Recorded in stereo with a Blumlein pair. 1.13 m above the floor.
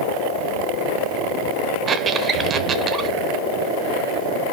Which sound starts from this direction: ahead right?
A squeak, at 1.9 s.